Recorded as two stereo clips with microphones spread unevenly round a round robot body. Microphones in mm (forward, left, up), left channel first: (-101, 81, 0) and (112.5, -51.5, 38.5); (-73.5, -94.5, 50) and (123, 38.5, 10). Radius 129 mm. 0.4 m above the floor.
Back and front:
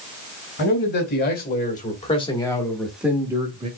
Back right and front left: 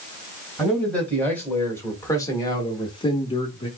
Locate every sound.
0.6 s a man speaking: 120° left, 2.0 m; by 3.7 s 85° right, 1.2 m